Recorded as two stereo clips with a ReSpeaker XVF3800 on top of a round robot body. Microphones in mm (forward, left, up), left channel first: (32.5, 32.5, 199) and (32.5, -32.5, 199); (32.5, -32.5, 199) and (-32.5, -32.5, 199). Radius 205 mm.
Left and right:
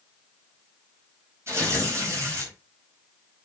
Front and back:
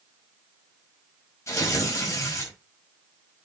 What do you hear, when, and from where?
1.5 s tearing paper: 45° right, 5 m